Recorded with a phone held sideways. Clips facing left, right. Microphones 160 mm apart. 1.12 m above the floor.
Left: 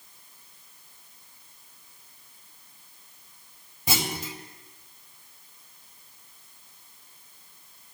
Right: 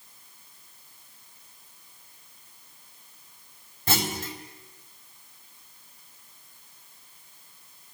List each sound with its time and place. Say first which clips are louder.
3.9 s a clunk: right 1 dB; 10° left (ahead or behind), 4 m